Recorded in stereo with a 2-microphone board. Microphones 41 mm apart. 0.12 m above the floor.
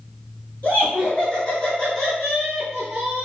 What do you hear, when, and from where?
0.6 s laughter: 40° left (ahead or behind), 1.8 m; by 3.3 s 20° right (ahead or behind), 1.5 m